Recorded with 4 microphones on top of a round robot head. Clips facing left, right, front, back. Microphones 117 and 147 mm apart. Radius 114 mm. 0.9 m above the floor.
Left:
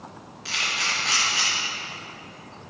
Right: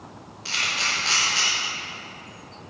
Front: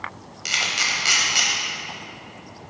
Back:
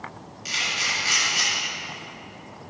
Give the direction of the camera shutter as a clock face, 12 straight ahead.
12 o'clock.